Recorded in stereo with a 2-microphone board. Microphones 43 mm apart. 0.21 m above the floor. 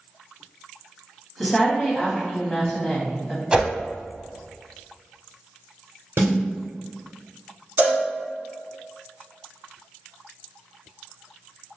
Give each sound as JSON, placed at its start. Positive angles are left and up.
{"t": 1.4, "sound": "a woman speaking", "side_deg": 5, "distance_m": 1.0}
{"t": 3.5, "sound": "a whoosh", "side_deg": -20, "distance_m": 0.6}
{"t": 6.2, "sound": "a snare drum", "side_deg": -60, "distance_m": 1.9}
{"t": 7.8, "sound": "a cowbell", "side_deg": -45, "distance_m": 1.5}